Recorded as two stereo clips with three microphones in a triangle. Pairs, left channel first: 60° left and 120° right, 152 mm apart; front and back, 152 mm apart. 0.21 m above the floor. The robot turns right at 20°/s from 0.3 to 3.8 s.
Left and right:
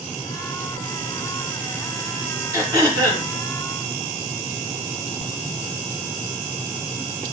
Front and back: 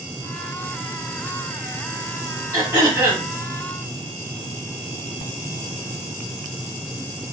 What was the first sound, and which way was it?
Throat clearing, 140° right.